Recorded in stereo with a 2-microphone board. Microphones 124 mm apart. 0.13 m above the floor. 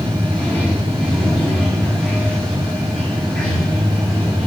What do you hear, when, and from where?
0.0 s running water: 5° left (ahead or behind), 5.5 m